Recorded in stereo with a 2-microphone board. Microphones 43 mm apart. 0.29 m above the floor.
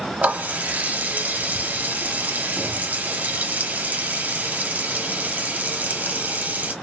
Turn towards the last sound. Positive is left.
turn(degrees=-40)  # may be behind; listen again after turning